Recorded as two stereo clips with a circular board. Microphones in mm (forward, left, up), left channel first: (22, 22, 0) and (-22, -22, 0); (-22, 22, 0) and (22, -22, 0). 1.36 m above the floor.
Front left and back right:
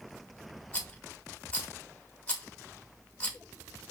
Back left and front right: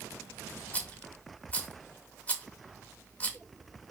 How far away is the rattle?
About 1.2 m.